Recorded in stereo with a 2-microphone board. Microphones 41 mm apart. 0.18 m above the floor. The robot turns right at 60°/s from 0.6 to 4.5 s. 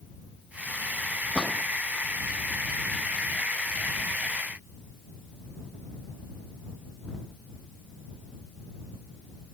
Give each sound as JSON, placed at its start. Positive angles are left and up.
{"t": 1.4, "sound": "a gunshot", "side_deg": -25}